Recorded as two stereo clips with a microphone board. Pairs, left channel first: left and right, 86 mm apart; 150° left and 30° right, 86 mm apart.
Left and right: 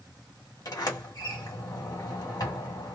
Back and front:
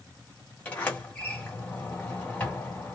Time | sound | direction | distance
0.7 | a sliding door | 85° left | 1.8 m